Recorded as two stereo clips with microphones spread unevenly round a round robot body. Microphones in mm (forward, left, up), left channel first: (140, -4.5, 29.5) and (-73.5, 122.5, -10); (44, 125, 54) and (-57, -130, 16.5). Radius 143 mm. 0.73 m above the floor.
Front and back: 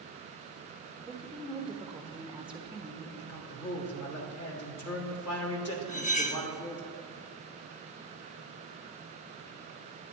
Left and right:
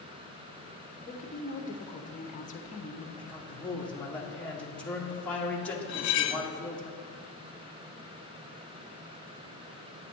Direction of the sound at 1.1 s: 95° left.